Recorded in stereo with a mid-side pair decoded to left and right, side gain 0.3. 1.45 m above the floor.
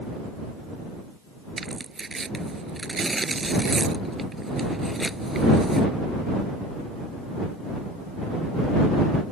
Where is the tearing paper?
45° right.